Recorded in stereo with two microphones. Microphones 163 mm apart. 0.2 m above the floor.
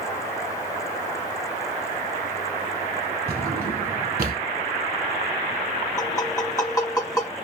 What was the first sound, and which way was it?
A drawer, 65° right (ahead or behind).